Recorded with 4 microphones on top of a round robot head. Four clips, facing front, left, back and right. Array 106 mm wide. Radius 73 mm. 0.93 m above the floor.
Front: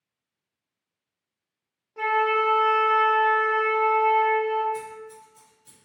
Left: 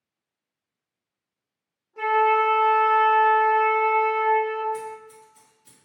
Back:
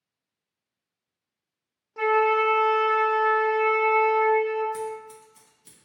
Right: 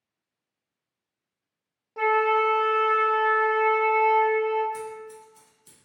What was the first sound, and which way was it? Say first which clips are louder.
A flute: left 2 dB, back 2 dB; 130° right.